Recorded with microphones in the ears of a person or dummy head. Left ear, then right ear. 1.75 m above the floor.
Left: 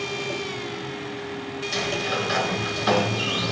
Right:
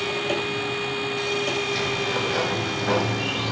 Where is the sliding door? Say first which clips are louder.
Right 1 dB; 70° left (ahead or behind), 6.5 m.